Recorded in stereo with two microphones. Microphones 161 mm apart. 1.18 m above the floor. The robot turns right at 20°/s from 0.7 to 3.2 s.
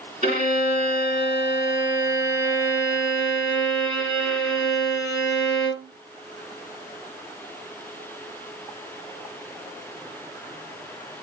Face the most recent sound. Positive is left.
turn(degrees=0)